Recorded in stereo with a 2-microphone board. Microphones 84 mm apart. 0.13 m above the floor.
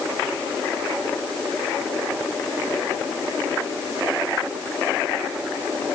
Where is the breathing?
No breathing in this recording.